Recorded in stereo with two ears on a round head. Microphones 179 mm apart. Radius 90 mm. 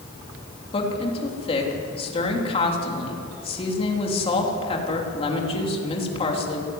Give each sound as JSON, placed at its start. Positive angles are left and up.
{"t": 0.7, "sound": "a woman speaking", "side_deg": 30, "distance_m": 3.5}